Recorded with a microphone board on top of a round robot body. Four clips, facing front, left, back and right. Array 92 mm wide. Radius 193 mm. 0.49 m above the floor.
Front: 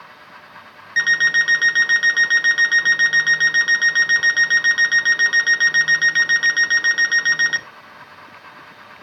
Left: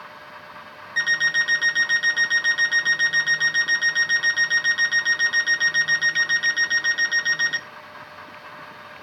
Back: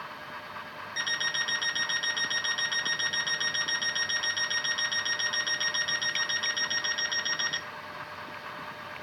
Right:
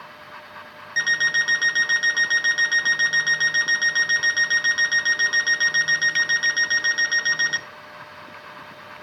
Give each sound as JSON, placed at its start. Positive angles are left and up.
{"t": 1.0, "sound": "an alarm clock", "azimuth_deg": -10, "distance_m": 0.8}